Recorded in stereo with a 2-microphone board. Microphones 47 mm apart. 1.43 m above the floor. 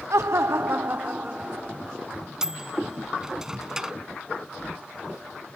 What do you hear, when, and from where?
0.1 s laughter: 75° right (ahead or behind); by 2.1 s 20° right (ahead or behind)
2.4 s a microwave: 10° right (ahead or behind)